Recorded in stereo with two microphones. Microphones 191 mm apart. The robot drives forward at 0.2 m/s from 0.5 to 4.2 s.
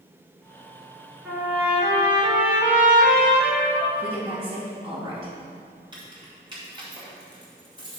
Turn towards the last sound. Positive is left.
turn(degrees=-25)  # may be behind; listen again after turning